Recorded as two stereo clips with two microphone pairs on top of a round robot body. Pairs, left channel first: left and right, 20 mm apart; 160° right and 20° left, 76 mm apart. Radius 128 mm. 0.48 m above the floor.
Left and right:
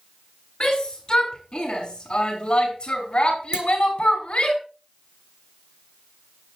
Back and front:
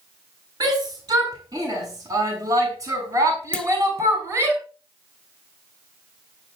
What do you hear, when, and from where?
0.6 s a shout: 50° left, 6.5 m; by 4.5 s 70° left, 5.5 m
3.5 s a clunk: 85° right, 1.5 m